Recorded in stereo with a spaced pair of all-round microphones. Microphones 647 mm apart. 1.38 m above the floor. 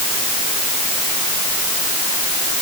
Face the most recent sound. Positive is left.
No sound to turn to.